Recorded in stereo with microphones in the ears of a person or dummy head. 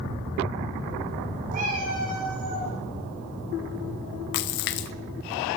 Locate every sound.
1.5 s a cat meowing: 45° right (ahead or behind), 6 m; by 2.7 s 55° right (ahead or behind), 7.5 m
4.3 s a splash: 55° left (ahead or behind), 0.5 m